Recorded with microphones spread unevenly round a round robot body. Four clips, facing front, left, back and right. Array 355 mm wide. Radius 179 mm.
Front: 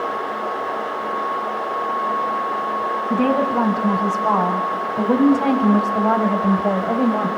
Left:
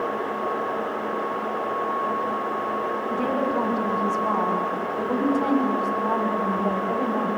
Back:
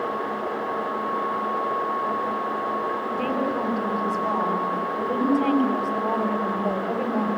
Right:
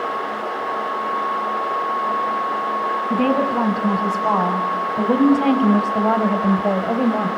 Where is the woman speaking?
50° right, 6 m; by 7.3 s 60° right, 4.5 m.